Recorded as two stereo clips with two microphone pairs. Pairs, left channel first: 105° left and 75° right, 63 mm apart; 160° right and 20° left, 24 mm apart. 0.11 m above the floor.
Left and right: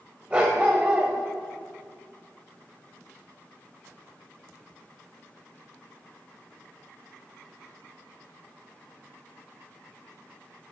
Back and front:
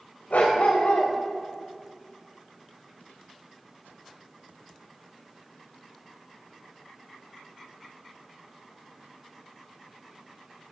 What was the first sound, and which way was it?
A dog barking, 145° right.